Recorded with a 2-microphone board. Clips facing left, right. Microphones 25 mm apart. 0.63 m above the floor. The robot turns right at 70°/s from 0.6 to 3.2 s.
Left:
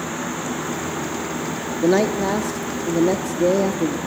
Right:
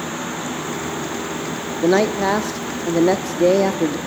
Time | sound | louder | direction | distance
1.8 | a man speaking | right 2 dB | 165° right | 0.7 m